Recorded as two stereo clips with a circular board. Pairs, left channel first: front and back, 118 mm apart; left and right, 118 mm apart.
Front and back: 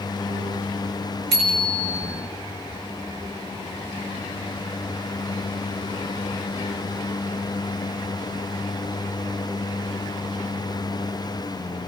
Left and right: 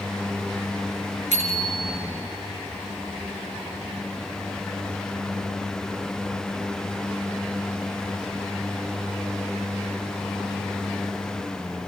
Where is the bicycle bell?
90° right, 5 m.